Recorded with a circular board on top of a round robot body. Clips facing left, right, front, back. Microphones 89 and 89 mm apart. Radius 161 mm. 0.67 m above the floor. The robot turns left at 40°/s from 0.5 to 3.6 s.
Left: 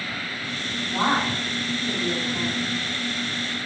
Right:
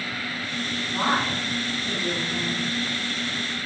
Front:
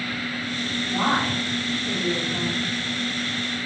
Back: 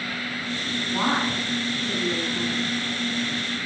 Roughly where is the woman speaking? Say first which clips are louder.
Left 2 dB, front 1 dB; ahead left.